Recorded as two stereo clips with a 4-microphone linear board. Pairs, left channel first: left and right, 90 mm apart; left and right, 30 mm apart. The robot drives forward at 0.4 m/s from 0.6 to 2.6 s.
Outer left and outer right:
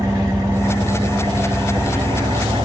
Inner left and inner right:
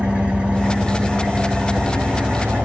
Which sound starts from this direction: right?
An engine running, at 0.0 s.